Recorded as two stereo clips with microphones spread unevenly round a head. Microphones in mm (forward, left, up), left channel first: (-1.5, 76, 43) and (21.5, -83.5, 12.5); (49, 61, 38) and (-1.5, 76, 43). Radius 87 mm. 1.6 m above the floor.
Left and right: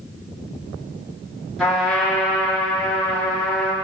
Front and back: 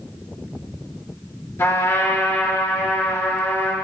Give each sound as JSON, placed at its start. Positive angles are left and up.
{"t": 1.6, "sound": "a trumpet", "azimuth_deg": 10, "distance_m": 4.5}